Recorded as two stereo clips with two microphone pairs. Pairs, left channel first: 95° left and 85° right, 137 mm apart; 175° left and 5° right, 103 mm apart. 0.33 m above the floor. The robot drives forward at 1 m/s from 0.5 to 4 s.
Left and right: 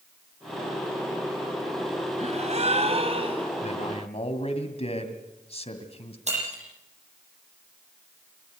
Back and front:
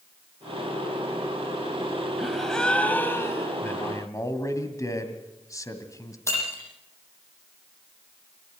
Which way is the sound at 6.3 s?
120° right.